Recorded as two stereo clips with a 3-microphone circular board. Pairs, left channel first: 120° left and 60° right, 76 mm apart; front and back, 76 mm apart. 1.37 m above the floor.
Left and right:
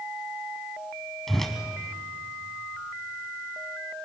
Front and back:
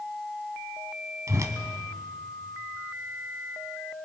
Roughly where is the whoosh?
Behind right.